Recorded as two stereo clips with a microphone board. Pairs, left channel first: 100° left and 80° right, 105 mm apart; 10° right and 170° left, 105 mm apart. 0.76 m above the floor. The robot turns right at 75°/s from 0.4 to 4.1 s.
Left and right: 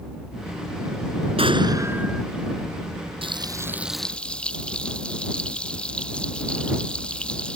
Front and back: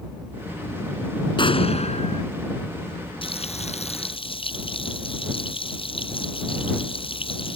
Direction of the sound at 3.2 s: 45° right.